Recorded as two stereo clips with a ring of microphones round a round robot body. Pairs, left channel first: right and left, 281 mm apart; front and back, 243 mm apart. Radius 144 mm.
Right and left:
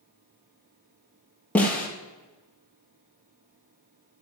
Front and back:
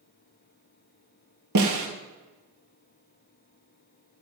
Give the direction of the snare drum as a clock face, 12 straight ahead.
6 o'clock.